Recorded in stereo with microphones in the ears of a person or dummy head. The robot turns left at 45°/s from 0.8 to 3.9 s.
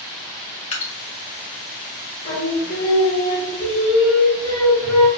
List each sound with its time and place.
0.7 s dripping: 35° left (ahead or behind), 0.6 m
2.2 s singing: 75° left, 1.3 m; by 5.1 s straight ahead, 1.3 m